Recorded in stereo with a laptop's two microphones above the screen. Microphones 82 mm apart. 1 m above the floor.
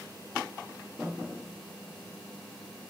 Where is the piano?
25° right (ahead or behind), 1.1 m.